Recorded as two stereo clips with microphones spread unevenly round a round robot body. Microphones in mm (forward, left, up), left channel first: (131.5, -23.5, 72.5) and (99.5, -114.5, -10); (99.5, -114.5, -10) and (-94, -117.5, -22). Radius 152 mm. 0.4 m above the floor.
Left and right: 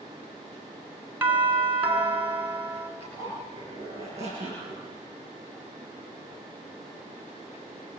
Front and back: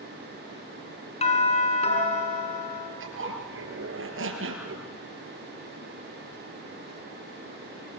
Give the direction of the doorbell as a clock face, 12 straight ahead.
2 o'clock.